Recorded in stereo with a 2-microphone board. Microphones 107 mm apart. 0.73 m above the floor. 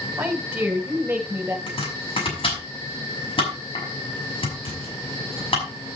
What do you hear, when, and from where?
0.2 s a woman speaking: 15° right (ahead or behind), 3 m; by 1.6 s 20° right (ahead or behind), 4 m
1.7 s chopping: 60° left (ahead or behind), 6 m